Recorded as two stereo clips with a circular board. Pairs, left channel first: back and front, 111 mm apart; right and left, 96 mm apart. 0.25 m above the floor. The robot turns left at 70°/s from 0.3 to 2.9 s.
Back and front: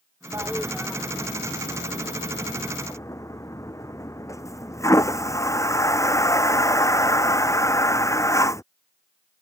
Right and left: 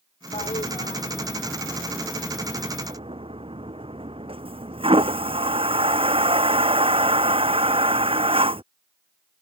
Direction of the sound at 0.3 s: 65° right.